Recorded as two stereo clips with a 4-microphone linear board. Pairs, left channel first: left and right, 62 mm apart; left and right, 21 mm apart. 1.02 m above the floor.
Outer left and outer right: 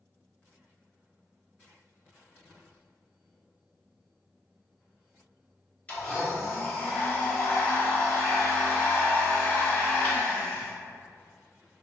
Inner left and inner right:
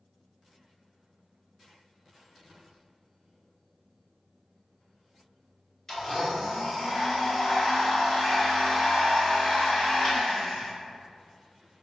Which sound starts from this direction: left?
A blender, at 5.9 s.